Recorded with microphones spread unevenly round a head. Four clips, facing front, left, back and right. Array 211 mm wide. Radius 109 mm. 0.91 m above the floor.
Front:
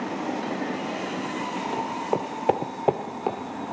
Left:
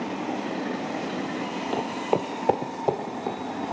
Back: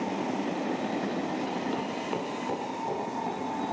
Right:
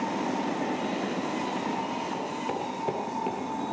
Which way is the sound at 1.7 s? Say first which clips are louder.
Left 5 dB, front 5 dB; 100° left.